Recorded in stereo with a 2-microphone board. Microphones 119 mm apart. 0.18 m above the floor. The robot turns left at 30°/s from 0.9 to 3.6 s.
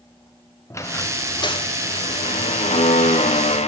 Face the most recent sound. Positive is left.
turn(degrees=75)